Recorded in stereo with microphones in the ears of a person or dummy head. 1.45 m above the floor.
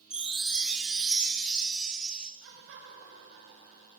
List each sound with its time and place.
0.1 s a chime: 5° right (ahead or behind), 0.9 m
2.4 s laughter: 80° right, 6.5 m